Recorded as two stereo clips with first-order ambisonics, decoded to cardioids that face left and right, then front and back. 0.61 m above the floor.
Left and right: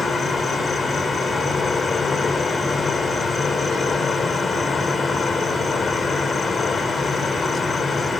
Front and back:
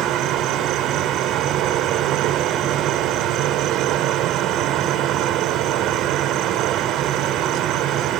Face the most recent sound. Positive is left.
turn(degrees=155)